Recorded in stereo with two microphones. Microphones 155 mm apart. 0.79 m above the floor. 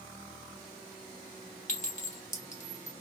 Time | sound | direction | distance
1.7 | a clink | 50° left (ahead or behind) | 0.8 m